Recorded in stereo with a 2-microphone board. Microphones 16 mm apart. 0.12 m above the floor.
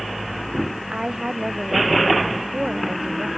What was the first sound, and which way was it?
A woman speaking, 65° right (ahead or behind).